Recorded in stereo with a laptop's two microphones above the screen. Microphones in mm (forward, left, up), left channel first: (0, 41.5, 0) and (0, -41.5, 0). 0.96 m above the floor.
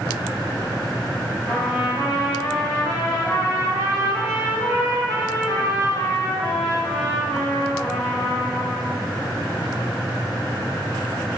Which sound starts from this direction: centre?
A trumpet, at 1.5 s.